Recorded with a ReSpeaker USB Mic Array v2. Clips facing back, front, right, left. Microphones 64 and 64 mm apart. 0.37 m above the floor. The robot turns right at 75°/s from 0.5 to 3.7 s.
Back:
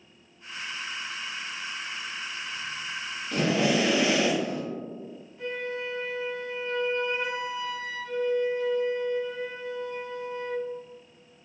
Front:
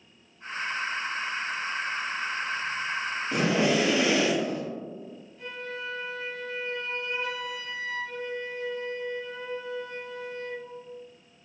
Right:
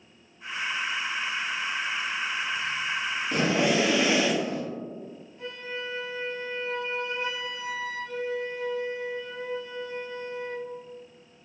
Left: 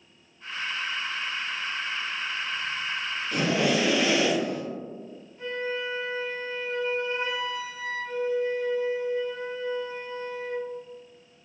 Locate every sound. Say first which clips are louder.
3.3 s breathing: even, even; 60° right, 0.9 m; by 4.6 s 30° right, 0.9 m
5.4 s a flute: back 5 dB, left 6 dB; 115° left, 1.8 m